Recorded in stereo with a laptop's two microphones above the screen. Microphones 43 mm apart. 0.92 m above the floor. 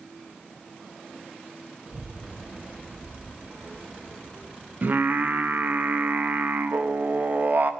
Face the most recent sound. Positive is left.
turn(degrees=-50)  # may be behind; listen again after turning